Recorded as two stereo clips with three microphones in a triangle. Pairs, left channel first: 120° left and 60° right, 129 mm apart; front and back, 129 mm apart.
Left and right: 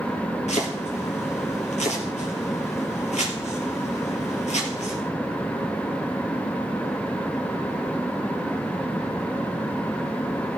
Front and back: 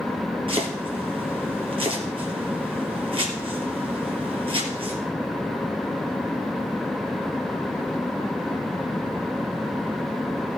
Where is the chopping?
140° left, 3 m.